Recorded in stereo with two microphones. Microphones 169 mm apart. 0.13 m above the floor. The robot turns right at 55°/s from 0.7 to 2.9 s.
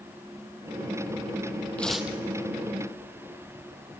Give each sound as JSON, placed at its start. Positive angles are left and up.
{"t": 1.8, "sound": "tearing paper", "side_deg": 10, "distance_m": 1.2}